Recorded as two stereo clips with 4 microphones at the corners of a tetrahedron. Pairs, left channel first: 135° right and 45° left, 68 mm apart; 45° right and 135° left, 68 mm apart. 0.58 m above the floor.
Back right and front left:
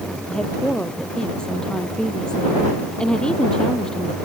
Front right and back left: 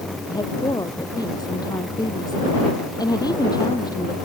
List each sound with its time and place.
0.3 s a woman speaking: 55° right